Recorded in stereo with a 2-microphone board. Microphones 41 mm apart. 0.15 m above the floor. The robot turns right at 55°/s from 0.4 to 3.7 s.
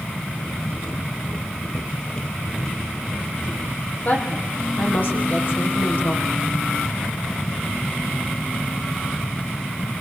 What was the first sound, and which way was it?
A woman speaking, 45° left (ahead or behind).